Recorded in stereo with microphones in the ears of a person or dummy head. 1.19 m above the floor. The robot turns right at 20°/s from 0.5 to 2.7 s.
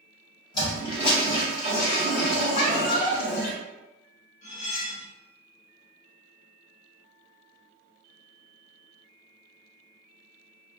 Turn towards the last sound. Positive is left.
turn(degrees=50)  # may be behind; listen again after turning